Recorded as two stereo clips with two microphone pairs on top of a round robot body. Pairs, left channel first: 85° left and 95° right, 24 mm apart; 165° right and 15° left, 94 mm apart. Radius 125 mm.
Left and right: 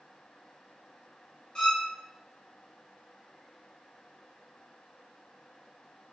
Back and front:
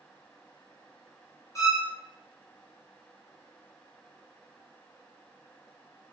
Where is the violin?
140° left, 1.2 m.